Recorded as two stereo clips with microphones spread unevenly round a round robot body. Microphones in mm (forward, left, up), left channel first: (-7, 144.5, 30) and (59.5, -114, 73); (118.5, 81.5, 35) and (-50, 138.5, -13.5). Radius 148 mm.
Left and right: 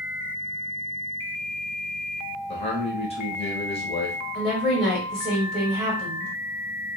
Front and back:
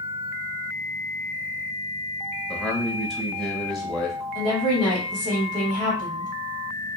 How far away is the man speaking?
About 1.2 m.